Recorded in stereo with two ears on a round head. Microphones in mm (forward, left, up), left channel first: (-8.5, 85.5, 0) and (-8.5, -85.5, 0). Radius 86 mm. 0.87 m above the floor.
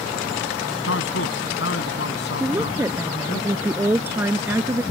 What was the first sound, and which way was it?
A man speaking, 70° left (ahead or behind).